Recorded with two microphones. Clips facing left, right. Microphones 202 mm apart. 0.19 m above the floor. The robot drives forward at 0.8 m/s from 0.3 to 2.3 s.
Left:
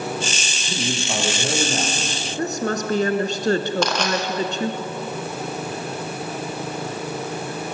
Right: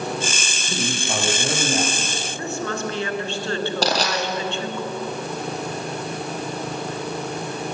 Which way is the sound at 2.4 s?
40° left (ahead or behind).